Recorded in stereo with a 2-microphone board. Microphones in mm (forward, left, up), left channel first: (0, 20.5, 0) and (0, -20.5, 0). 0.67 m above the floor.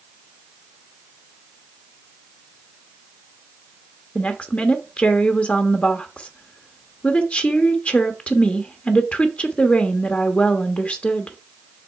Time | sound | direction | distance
4.2 | a woman speaking | 35° left (ahead or behind) | 1.0 m